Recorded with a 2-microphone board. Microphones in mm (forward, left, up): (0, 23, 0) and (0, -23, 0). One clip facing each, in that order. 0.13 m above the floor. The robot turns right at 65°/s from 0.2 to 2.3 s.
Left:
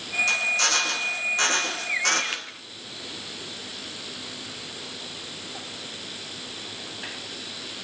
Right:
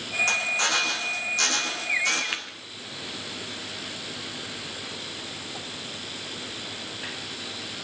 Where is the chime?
No chime in this recording.